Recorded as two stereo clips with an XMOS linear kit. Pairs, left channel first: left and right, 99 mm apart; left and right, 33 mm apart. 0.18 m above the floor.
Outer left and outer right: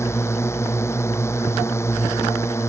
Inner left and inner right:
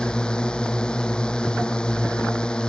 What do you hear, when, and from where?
0.0 s a drone: 25° left (ahead or behind)